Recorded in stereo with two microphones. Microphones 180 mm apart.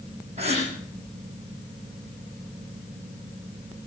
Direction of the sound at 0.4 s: 35° right (ahead or behind).